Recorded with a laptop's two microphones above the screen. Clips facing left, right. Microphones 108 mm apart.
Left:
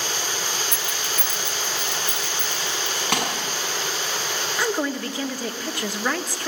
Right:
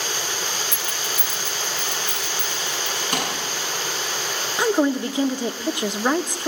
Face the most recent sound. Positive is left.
turn(degrees=-20)  # may be behind; listen again after turning